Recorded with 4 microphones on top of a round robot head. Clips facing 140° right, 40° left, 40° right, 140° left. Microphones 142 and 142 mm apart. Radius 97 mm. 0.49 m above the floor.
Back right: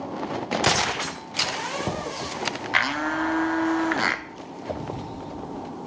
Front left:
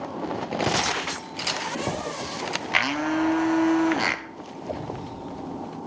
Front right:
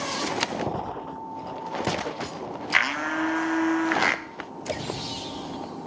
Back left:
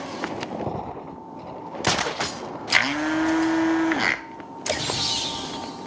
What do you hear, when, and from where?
2.7 s a blender: 105° left, 0.9 m